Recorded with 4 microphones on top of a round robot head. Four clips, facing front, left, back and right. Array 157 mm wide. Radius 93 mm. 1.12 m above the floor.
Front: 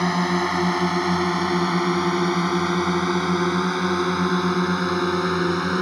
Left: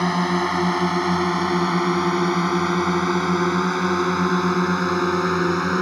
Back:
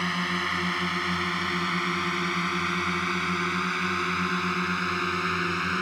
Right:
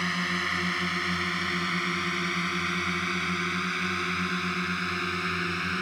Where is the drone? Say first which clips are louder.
Left 10 dB, front 8 dB; 50° left; by 5.8 s 55° left.